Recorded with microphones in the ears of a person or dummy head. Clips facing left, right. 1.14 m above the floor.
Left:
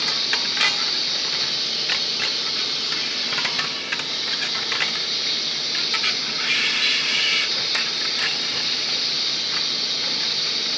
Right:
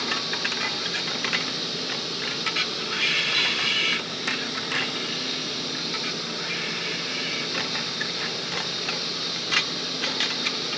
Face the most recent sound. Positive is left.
turn(degrees=20)  # may be behind; listen again after turning